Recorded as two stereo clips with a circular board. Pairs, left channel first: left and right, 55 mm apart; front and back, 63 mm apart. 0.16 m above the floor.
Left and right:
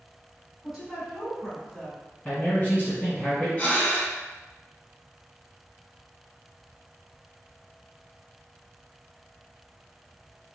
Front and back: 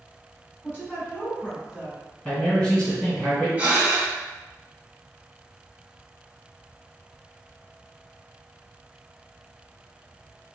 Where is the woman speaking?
25° right, 1.7 m; by 2.0 s 110° left, 1.4 m.